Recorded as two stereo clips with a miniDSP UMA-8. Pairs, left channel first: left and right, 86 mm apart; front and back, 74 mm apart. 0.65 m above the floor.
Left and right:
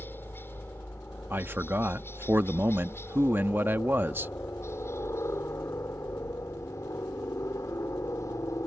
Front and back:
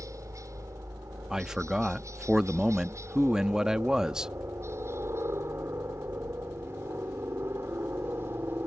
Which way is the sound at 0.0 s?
150° left.